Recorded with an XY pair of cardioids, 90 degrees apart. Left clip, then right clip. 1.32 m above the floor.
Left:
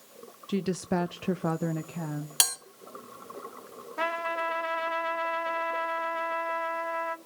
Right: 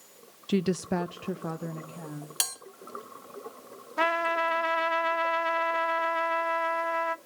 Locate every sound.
0.5 s a woman speaking: 40° right, 0.5 m; by 2.3 s 60° left, 1.5 m
2.4 s a bell: 40° left, 3 m
4.0 s a trumpet: 40° right, 1.1 m